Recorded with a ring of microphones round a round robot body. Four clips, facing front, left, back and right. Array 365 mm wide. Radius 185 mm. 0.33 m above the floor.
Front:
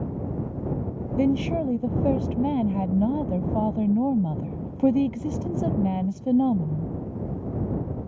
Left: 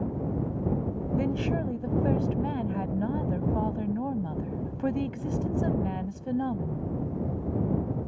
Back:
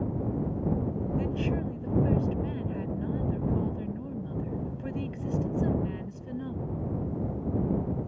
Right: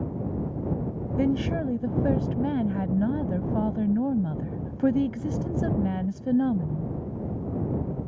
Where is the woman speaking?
30° right.